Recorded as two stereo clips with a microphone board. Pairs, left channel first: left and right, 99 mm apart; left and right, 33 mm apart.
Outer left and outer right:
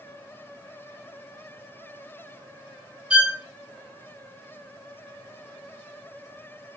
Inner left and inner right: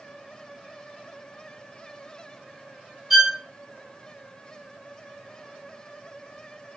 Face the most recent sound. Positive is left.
turn(degrees=-10)  # may be behind; listen again after turning